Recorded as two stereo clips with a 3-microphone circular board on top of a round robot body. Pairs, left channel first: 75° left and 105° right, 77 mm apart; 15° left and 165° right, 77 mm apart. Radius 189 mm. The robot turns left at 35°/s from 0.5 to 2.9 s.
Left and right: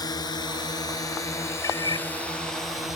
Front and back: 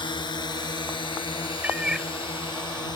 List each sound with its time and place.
0.0 s a drone: 35° left; by 3.0 s 15° right
1.6 s a cat meowing: 125° left; by 2.1 s 105° left